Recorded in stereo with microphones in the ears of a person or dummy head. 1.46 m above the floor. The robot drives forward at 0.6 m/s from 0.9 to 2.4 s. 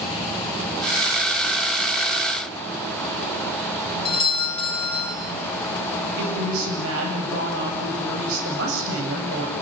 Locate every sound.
4.0 s a doorbell: 30° left (ahead or behind), 4.5 m
6.2 s a woman speaking: 80° right, 9 m